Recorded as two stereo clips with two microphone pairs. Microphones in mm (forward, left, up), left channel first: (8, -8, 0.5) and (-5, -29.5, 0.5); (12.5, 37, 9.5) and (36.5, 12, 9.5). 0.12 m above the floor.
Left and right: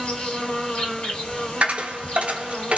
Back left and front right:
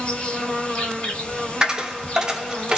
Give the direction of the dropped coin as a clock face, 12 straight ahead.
4 o'clock.